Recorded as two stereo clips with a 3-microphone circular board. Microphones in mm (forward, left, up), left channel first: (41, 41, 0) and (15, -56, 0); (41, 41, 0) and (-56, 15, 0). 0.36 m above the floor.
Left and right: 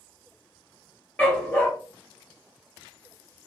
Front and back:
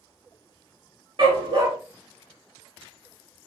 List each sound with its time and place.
1.2 s a dog barking: 150° left, 1.8 m